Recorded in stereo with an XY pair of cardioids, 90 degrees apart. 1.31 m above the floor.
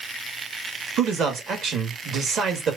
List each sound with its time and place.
1.0 s a man speaking: 65° right, 1.9 m